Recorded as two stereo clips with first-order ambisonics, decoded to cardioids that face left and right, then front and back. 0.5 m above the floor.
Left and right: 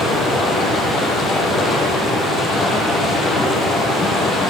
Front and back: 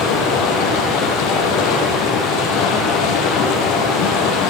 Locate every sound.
0.0 s running water: 20° left, 6.5 m